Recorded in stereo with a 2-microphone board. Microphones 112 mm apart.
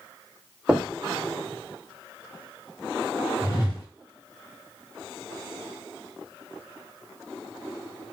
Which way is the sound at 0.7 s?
10° right (ahead or behind).